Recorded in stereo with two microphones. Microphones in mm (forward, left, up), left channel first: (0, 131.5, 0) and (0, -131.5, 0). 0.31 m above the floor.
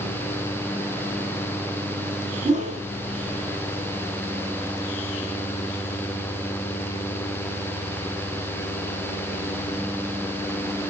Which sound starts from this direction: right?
A whoosh, at 2.5 s.